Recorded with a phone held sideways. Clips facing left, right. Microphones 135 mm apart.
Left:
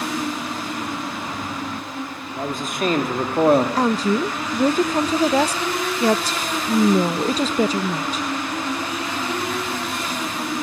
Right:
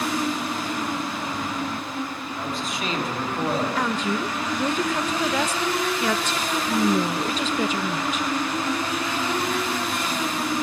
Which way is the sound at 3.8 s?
35° left (ahead or behind).